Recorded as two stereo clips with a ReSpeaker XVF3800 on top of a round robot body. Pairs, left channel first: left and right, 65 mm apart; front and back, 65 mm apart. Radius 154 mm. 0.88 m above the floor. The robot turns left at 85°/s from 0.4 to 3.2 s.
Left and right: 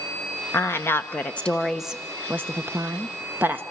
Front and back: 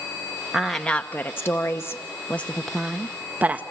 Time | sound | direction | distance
0.5 | a woman speaking | 100° left | 1.0 m